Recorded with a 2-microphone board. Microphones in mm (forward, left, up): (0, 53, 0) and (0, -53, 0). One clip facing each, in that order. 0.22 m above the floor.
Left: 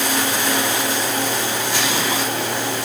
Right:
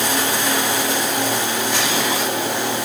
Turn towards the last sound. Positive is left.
No sound to turn to.